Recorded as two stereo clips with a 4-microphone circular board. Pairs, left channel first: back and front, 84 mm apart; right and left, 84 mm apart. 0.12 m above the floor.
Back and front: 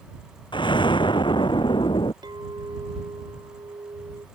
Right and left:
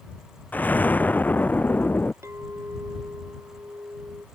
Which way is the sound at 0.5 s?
160° right.